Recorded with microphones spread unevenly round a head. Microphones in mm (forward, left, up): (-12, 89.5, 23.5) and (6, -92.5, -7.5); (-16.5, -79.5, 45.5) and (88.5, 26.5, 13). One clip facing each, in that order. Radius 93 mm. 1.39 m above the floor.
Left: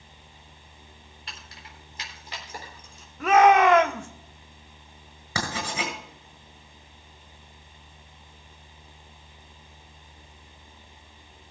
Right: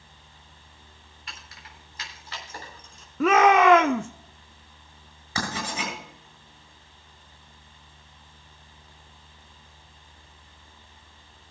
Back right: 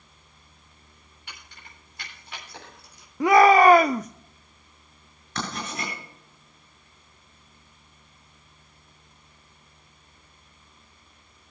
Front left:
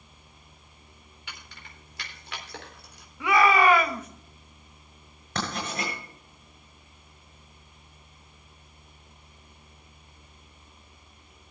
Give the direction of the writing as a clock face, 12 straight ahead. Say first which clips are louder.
Even, front left 1 dB; 9 o'clock.